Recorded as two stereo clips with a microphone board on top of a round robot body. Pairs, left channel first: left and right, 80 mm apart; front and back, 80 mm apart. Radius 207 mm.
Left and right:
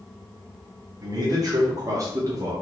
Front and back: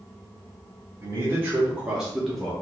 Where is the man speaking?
125° right, 1.4 m; by 2.5 s 80° right, 1.1 m.